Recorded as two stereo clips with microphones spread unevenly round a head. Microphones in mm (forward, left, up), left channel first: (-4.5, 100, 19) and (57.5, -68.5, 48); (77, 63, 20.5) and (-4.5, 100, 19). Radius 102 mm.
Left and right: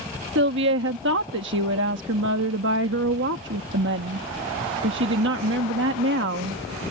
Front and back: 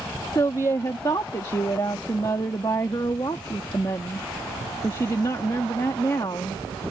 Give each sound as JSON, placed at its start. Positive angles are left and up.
{"t": 0.3, "sound": "a woman speaking", "azimuth_deg": -90}